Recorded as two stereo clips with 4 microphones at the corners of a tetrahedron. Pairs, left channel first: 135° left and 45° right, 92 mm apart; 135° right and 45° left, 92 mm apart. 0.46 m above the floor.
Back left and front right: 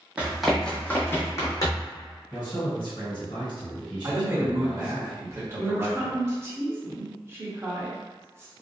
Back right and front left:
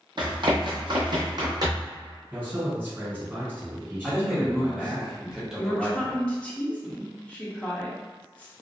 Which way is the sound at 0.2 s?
30° left.